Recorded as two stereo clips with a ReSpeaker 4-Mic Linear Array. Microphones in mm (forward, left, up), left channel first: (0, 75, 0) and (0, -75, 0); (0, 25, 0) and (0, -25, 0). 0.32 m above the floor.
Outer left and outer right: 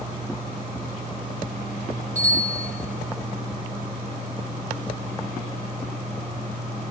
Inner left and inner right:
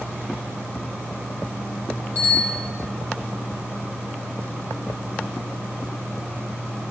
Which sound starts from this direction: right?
A bicycle bell, at 2.1 s.